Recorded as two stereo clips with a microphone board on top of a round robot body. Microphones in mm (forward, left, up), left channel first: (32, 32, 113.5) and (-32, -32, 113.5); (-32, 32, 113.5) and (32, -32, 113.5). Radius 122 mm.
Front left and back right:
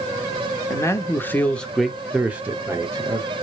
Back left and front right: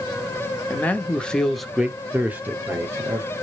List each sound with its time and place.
0.7 s a man speaking: 75° left, 1.0 m; by 3.3 s 95° right, 1.2 m